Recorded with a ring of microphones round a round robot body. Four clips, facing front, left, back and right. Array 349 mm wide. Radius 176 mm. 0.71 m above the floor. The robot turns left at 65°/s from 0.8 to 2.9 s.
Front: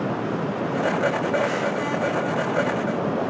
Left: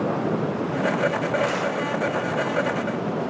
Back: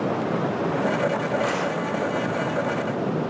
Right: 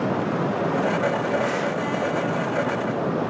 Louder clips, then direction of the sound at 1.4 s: Even, front 1 dB; 155° left.